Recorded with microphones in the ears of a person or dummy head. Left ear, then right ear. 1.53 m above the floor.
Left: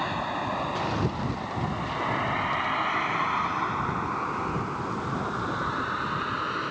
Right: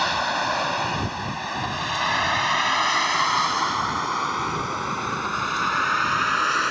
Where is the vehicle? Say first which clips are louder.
Right 7 dB; 65° right (ahead or behind); by 6.7 s 60° right (ahead or behind).